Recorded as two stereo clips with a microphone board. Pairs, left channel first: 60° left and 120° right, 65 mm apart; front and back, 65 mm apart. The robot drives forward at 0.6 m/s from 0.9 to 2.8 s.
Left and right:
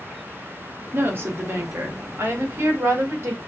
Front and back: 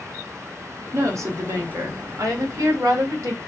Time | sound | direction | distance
0.9 | a woman speaking | 165° right | 1.9 m